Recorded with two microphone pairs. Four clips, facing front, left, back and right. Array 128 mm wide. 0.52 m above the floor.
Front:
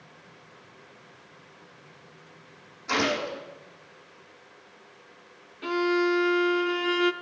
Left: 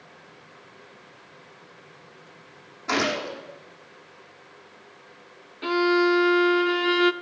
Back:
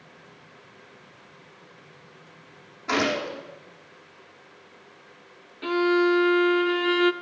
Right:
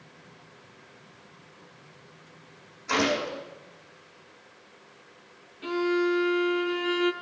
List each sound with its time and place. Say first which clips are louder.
2.9 s a gunshot: even, back 2 dB; 115° left, 8 m
5.6 s a violin: left 5 dB, back 3 dB; 95° left, 0.5 m